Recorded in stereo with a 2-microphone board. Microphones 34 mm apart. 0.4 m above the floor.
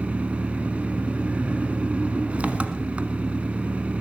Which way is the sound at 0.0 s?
35° right (ahead or behind).